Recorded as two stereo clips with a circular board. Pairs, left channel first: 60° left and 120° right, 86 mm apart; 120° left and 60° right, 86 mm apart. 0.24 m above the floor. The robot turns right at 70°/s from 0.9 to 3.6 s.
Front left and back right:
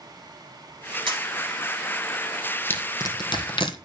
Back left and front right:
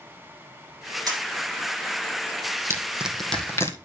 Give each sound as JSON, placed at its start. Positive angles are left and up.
{"t": 1.1, "sound": "a camera shutter", "azimuth_deg": -105, "distance_m": 4.5}
{"t": 2.7, "sound": "crushing", "azimuth_deg": -5, "distance_m": 1.5}